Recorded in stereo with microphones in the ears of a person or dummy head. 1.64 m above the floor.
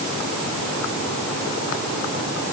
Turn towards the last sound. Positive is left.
No sound to turn to.